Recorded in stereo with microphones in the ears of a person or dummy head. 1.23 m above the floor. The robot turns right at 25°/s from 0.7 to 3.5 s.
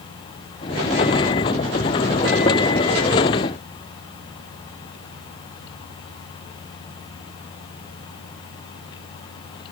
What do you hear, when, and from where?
Only background noise.